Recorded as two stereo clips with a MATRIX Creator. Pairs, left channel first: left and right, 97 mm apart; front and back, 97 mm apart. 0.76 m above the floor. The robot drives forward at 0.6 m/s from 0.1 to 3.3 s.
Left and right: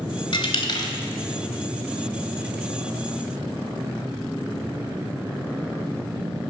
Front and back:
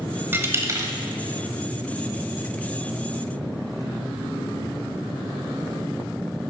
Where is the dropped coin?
115° left, 1.1 m; by 0.9 s 130° left, 1.3 m.